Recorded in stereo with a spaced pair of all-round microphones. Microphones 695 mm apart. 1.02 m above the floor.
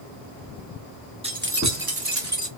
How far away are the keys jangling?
About 1.0 m.